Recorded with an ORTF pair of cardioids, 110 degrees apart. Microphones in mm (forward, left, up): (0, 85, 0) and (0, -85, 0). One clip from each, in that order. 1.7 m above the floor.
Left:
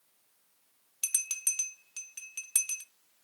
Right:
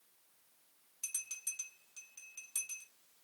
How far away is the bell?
About 0.5 m.